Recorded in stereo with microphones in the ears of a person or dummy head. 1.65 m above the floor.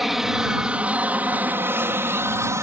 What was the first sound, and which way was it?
An aircraft, centre (ahead or behind).